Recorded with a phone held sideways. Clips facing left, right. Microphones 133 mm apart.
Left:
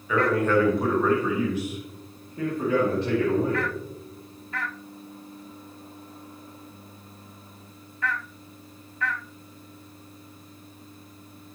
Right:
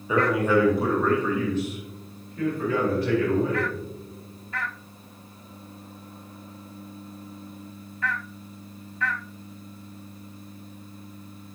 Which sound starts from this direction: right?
A man speaking, at 0.1 s.